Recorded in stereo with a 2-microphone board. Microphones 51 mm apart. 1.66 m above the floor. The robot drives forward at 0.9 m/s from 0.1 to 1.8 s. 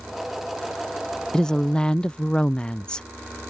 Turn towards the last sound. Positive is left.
turn(degrees=15)  # may be behind; listen again after turning